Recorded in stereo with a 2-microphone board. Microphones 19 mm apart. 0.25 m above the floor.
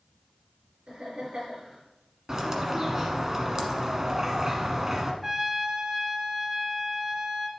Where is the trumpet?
20° right (ahead or behind), 1.3 m.